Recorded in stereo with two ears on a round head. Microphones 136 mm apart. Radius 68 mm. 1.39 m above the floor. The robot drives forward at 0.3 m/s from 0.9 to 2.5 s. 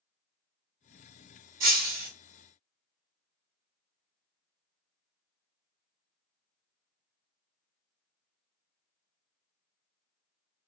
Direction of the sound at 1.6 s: 60° right (ahead or behind).